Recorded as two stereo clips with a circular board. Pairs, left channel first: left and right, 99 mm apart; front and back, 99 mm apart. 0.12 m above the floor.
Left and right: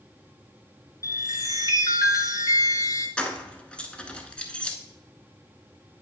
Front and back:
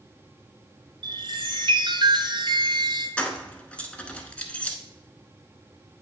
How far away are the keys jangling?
About 0.7 m.